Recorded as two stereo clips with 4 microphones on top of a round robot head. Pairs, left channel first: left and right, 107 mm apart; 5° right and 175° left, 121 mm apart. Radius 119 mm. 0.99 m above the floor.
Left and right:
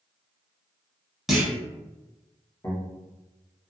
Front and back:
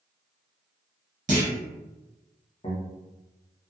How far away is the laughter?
About 1.3 m.